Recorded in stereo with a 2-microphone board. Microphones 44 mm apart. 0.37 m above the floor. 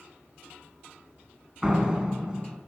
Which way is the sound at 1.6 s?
15° right (ahead or behind).